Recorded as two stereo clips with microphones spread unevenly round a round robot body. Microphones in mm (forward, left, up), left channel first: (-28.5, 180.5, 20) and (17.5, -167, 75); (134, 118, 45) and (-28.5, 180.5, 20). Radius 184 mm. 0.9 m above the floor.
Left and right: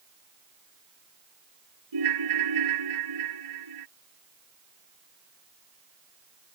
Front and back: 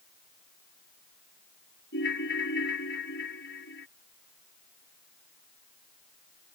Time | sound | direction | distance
1.9 | a ringtone | 55° right | ?